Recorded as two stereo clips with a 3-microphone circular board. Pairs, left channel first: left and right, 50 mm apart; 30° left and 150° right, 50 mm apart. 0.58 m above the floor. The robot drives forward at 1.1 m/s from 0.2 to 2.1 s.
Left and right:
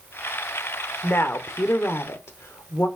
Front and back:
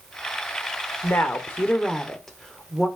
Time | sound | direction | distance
1.0 | a woman speaking | 55° left | 1.5 m